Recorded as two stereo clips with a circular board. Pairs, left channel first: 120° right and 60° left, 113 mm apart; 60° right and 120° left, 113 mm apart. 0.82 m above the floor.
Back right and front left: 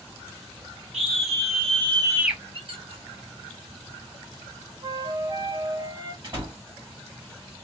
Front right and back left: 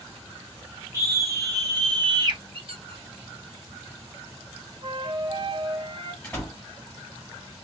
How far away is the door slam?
About 1.6 m.